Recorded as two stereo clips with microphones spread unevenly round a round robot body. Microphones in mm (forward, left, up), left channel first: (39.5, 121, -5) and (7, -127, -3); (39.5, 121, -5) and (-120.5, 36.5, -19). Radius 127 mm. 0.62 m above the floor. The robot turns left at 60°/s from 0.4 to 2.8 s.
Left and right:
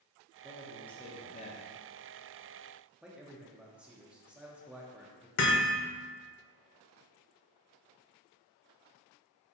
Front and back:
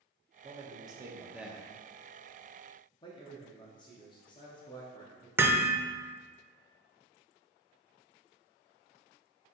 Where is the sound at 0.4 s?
170° right, 0.7 m; by 1.6 s 115° left, 0.7 m.